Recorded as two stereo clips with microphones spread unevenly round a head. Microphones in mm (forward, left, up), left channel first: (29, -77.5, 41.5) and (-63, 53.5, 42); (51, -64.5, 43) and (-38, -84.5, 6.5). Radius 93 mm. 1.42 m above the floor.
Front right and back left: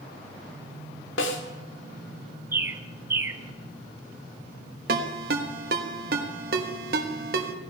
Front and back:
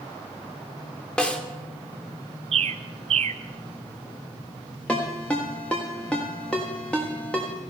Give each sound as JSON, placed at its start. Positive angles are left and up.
{"t": 1.2, "sound": "a snare drum", "azimuth_deg": -50, "distance_m": 1.7}
{"t": 2.5, "sound": "a bird", "azimuth_deg": -165, "distance_m": 0.6}
{"t": 4.9, "sound": "a ringtone", "azimuth_deg": 90, "distance_m": 1.3}